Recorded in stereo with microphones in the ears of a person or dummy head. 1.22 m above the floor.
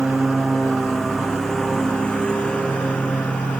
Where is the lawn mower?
Centre (ahead or behind); by 3.6 s 5° left (ahead or behind).